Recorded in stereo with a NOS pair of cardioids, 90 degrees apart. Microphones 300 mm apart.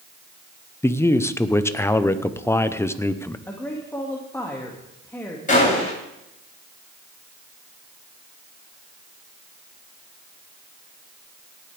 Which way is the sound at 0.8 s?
10° left.